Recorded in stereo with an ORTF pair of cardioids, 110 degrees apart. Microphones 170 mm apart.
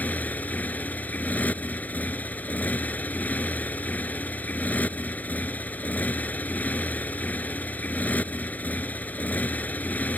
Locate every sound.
0.0 s a motorcycle: 10° left